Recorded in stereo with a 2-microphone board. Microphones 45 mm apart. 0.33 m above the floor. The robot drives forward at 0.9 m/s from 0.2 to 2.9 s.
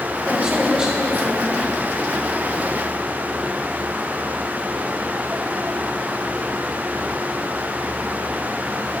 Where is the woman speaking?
25° right (ahead or behind), 1.1 m; by 1.6 s 10° right (ahead or behind), 2 m.